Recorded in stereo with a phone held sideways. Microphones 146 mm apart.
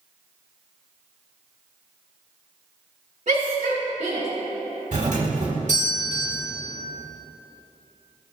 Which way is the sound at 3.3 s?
55° right (ahead or behind).